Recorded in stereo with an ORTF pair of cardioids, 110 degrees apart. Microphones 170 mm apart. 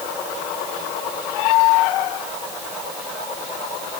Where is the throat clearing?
I don't hear throat clearing.